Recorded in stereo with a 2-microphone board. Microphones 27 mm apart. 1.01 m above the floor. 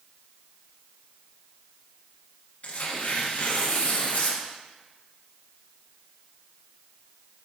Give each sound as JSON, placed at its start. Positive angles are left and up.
{"t": 2.6, "sound": "tearing paper", "side_deg": 65, "distance_m": 0.9}